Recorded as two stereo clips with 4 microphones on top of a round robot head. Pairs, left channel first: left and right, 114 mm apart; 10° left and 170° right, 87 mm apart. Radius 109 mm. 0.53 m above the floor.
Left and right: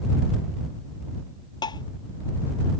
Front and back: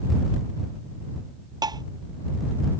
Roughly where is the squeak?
I don't hear a squeak.